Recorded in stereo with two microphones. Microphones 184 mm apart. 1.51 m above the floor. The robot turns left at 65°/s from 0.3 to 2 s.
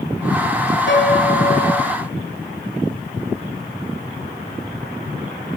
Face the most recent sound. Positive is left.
turn(degrees=15)